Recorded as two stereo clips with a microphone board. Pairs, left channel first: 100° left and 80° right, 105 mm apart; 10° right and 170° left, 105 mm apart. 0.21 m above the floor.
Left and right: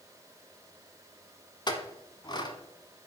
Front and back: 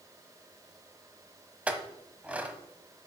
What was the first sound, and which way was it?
A clink, 95° left.